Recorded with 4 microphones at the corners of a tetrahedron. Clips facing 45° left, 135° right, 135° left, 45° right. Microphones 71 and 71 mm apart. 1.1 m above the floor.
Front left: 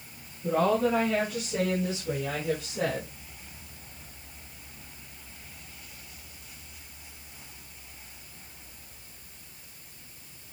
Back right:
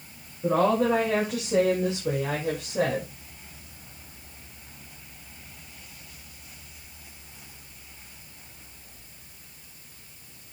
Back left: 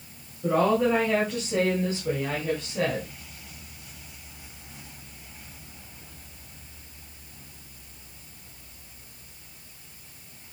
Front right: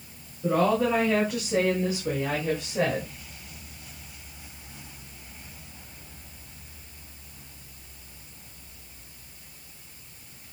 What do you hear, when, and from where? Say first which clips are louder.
0.4 s a woman speaking: back right 3 dB, back left 1 dB; 140° right, 6.5 m; by 3.1 s 115° right, 6 m